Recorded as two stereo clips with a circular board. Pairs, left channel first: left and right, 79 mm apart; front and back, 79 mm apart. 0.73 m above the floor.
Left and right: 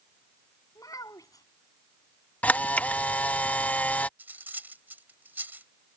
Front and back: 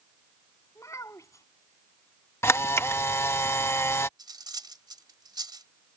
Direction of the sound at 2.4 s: 30° left.